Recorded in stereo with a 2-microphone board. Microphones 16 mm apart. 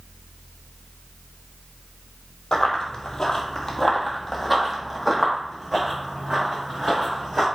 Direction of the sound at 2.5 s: 50° left (ahead or behind).